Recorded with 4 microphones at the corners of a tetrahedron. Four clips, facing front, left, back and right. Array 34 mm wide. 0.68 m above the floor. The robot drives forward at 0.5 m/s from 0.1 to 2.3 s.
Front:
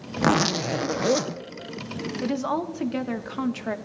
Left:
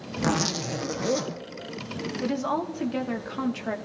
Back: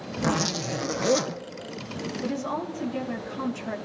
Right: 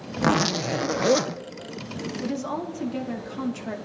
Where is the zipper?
30° right, 0.7 m; by 1.4 s 110° right, 0.5 m.